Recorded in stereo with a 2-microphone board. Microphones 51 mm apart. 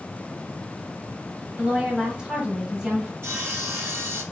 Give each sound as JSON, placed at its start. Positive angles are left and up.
{"t": 1.6, "sound": "a woman speaking", "side_deg": -10, "distance_m": 2.0}
{"t": 3.2, "sound": "sawing", "side_deg": -55, "distance_m": 2.5}